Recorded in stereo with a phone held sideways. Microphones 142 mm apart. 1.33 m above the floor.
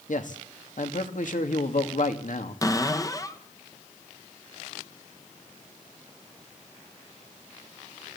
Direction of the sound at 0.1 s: 65° left (ahead or behind).